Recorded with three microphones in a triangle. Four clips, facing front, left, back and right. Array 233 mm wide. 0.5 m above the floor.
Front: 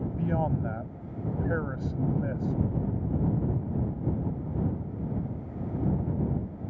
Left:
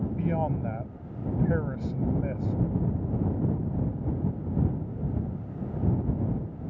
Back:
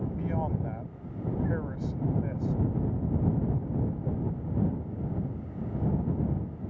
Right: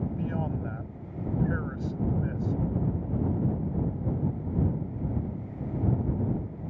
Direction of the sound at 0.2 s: 45° left.